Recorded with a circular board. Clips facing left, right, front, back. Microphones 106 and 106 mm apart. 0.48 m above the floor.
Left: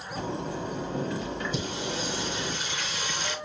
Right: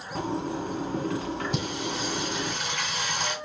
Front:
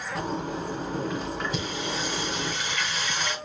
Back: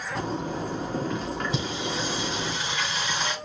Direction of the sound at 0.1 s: 90° right.